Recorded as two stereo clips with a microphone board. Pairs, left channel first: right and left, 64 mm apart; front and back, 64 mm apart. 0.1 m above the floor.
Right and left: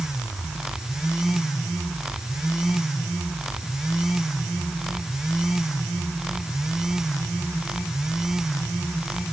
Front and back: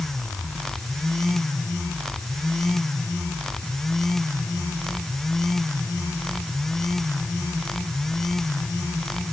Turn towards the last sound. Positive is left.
No sound to turn to.